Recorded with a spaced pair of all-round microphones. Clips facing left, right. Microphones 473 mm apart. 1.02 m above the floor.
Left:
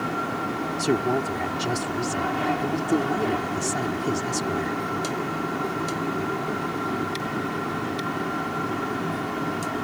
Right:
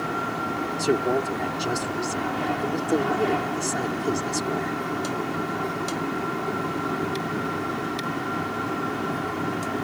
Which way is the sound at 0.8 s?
25° left (ahead or behind).